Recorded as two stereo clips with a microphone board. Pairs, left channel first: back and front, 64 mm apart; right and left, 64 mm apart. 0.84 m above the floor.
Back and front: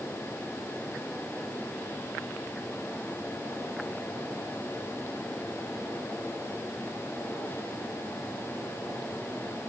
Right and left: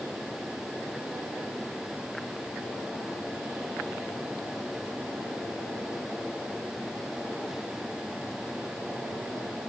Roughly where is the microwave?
I don't hear a microwave.